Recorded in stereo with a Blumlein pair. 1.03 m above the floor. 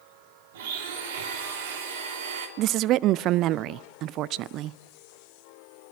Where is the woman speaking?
35° right, 0.5 m.